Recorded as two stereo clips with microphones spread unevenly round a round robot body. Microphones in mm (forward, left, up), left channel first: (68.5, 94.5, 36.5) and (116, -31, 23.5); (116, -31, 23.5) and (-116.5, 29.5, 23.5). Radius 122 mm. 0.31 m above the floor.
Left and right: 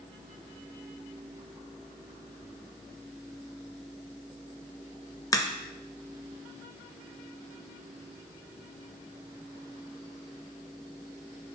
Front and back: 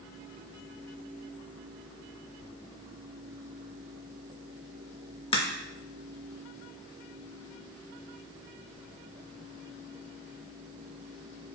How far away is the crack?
About 0.6 m.